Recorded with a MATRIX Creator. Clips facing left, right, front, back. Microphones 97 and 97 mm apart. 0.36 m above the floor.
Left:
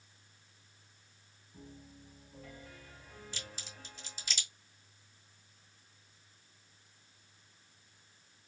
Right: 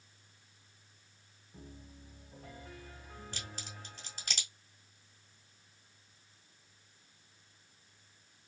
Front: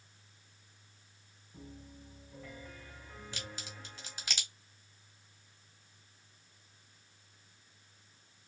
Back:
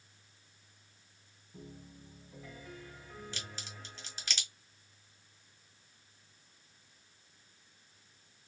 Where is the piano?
100° right, 1.9 m.